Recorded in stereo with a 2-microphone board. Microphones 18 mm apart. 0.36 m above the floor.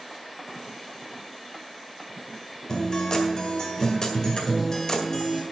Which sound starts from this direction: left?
A guitar, at 2.7 s.